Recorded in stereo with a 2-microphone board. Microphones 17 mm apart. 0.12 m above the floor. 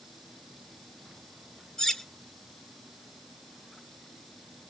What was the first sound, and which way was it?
Cutlery clinking, 35° left (ahead or behind).